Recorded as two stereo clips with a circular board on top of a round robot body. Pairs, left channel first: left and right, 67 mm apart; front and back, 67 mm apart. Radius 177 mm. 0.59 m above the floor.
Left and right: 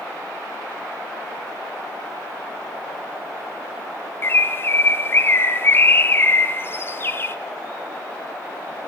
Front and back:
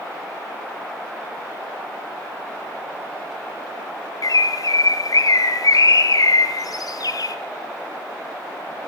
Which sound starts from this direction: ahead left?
A bird, at 4.2 s.